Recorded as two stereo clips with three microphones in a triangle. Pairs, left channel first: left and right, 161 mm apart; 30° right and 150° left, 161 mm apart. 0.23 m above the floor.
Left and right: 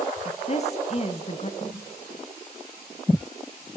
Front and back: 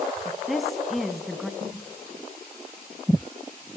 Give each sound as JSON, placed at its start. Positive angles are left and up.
{"t": 0.2, "sound": "a woman speaking", "azimuth_deg": 60, "distance_m": 1.5}
{"t": 1.6, "sound": "a snare drum", "azimuth_deg": 135, "distance_m": 9.5}